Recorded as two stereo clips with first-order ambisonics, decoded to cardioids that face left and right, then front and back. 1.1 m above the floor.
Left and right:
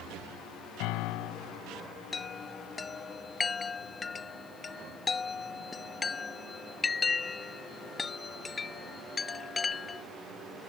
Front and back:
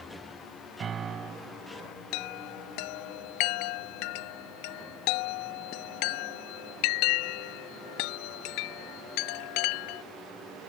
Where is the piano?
115° left.